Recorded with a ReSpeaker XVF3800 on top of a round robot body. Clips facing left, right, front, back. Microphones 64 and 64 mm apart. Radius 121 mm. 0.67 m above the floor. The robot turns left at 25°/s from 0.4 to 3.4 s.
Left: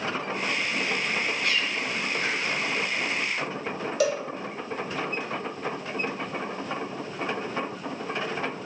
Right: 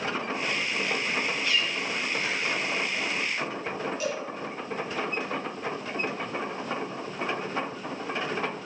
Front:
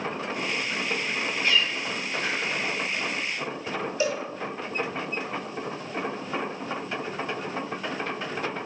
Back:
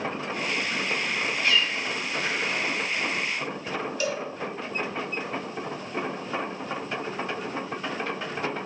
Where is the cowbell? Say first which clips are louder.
Left 11 dB, front 4 dB; 70° left, 1.7 m.